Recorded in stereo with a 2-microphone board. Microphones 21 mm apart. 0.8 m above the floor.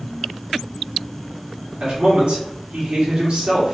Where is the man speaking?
60° right (ahead or behind), 2.5 m.